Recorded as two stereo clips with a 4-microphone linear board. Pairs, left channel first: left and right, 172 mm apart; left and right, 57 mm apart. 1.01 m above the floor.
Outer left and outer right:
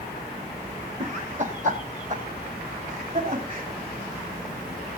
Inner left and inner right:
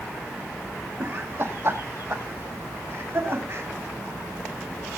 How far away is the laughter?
About 1.5 m.